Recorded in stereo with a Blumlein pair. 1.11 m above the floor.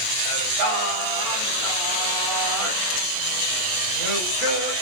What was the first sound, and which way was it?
Singing, 35° right.